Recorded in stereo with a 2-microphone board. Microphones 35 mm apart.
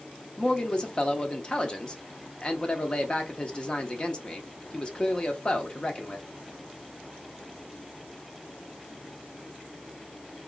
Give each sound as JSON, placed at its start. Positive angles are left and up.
{"t": 0.4, "sound": "a man speaking", "side_deg": 30, "distance_m": 0.7}